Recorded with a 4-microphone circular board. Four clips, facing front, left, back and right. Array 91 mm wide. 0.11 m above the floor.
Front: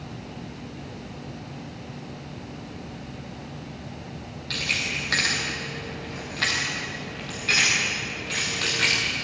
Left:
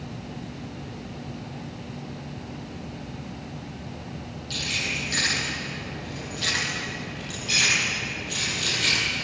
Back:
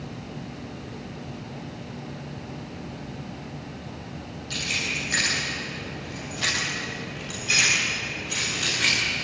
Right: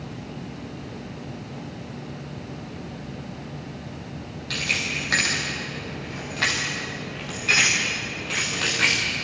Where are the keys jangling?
55° right, 9.5 m; by 9.0 s 70° right, 7.5 m.